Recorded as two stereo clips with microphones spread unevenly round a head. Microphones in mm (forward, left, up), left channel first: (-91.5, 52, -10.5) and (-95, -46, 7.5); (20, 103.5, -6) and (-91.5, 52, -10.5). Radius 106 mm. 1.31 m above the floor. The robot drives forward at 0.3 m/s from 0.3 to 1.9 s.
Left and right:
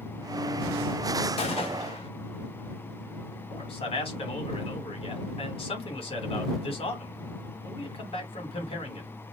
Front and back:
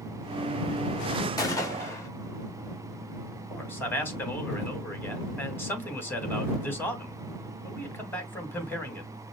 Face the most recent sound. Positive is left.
turn(degrees=100)